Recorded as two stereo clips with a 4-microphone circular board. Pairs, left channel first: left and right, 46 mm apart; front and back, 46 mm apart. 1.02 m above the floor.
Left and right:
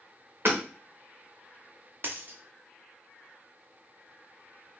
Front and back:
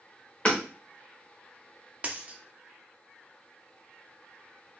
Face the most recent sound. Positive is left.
turn(degrees=-125)